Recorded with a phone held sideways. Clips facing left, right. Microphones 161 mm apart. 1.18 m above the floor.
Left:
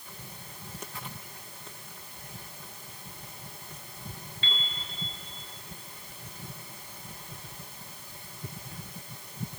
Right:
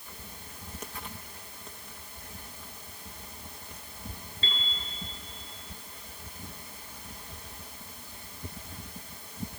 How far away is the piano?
About 5 m.